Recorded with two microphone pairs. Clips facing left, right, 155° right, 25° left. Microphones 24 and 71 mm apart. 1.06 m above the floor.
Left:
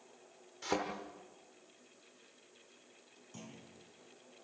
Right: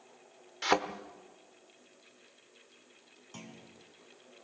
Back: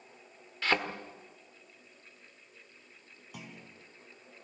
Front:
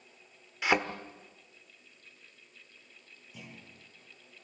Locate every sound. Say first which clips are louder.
0.6 s a thud: right 8 dB, front 2 dB; 50° right, 1.4 m
3.3 s a clunk: right 3 dB, back 2 dB; 140° right, 4.5 m